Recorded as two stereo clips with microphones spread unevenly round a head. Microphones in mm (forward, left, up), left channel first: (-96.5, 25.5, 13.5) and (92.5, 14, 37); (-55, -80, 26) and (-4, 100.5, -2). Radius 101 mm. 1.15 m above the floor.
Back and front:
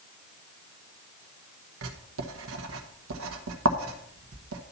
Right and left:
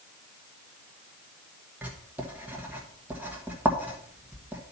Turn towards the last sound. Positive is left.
turn(degrees=-5)